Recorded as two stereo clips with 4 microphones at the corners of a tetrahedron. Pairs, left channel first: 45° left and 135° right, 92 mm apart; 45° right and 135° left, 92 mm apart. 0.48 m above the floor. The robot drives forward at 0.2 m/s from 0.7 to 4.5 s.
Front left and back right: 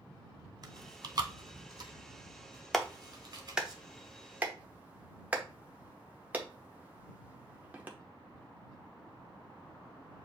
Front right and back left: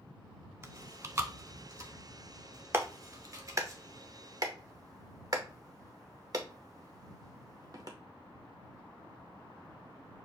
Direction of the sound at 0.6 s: 165° right.